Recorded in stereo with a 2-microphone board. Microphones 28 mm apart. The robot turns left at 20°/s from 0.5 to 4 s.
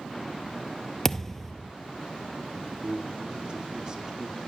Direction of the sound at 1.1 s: 15° left (ahead or behind).